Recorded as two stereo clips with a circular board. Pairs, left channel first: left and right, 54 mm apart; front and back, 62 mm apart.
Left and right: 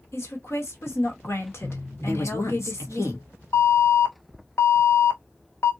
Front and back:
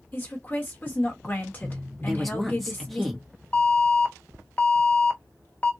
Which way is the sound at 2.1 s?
85° left.